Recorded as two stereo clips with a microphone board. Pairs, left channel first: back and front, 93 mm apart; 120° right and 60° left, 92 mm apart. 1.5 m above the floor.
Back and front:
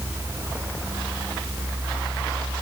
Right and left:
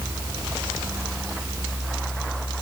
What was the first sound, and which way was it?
Only background noise.